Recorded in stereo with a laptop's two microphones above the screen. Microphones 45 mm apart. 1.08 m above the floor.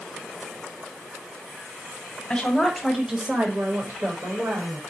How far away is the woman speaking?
About 1.1 m.